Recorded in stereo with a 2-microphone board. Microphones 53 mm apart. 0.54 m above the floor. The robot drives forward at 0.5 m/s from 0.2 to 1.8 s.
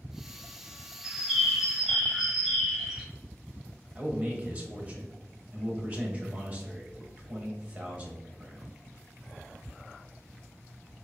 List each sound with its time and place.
1.0 s a bird: 10° right (ahead or behind), 0.8 m
4.0 s a man speaking: 30° right (ahead or behind), 1.0 m